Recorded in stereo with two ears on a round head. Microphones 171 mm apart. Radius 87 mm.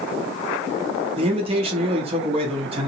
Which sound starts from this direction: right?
A man speaking, at 1.2 s.